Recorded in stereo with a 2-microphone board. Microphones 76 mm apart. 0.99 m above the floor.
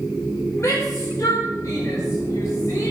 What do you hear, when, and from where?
0.6 s a shout: 45° left (ahead or behind), 4.5 m